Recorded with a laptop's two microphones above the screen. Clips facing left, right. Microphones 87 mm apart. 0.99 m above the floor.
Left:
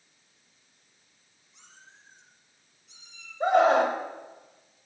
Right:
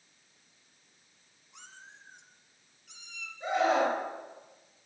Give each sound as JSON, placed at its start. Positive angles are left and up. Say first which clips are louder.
{"t": 1.5, "sound": "a cat meowing", "louder": "right 4 dB", "side_deg": -75, "distance_m": 3.5}
{"t": 3.4, "sound": "a scream", "louder": "left 6 dB", "side_deg": 75, "distance_m": 5.5}